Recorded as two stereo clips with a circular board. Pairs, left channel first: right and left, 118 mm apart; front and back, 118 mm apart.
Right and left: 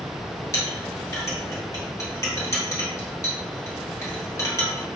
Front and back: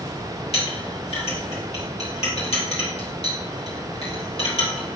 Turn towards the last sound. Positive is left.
turn(degrees=-25)